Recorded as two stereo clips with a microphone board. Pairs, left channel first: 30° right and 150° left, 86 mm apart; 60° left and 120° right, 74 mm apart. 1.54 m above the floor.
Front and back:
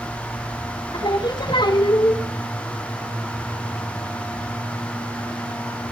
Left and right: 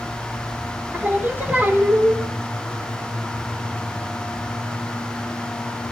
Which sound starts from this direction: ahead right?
Singing, at 0.9 s.